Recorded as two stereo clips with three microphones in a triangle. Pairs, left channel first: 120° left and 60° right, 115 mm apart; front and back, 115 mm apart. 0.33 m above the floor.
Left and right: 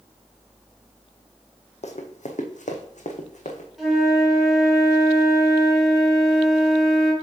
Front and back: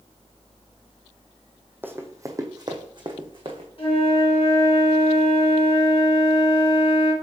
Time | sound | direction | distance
1.8 | running footsteps | 105° left | 1.0 m
3.8 | a flute | 30° left | 3 m